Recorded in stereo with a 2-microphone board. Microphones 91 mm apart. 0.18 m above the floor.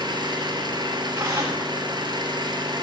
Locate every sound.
0.0 s an engine running: 55° right (ahead or behind), 2 m
1.1 s tearing paper: 35° right (ahead or behind), 9 m